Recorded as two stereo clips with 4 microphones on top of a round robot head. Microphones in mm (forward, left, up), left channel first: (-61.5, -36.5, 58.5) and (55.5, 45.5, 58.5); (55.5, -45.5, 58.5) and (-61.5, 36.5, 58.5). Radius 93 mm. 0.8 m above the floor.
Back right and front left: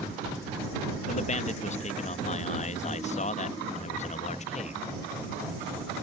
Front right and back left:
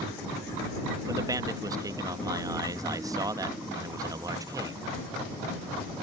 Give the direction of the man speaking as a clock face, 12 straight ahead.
5 o'clock.